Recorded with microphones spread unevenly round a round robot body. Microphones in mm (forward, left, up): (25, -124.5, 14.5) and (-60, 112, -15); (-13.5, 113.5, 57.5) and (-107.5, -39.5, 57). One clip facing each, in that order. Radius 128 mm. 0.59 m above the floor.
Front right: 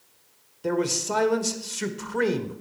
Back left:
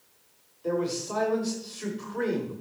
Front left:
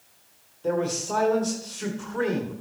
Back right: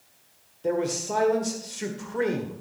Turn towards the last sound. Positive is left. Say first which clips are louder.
# front right 3 dB, even
turn(degrees=-45)